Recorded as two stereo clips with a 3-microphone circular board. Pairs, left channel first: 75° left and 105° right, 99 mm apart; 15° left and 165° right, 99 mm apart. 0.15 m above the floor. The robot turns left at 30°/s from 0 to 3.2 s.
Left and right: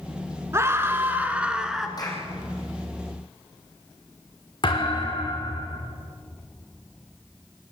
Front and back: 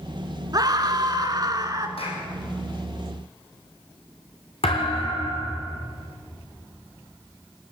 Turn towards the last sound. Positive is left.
turn(degrees=30)